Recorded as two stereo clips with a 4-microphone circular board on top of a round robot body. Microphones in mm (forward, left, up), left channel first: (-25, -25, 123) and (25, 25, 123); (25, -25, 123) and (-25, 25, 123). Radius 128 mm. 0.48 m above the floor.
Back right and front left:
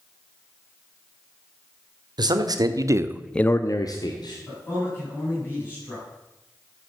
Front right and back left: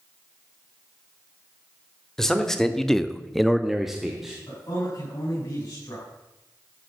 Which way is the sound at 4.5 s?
80° right.